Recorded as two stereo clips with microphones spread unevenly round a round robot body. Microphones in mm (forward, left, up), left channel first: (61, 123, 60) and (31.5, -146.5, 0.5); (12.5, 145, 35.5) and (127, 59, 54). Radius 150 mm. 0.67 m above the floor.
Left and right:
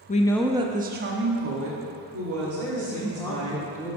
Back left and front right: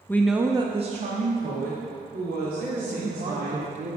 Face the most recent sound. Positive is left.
turn(degrees=0)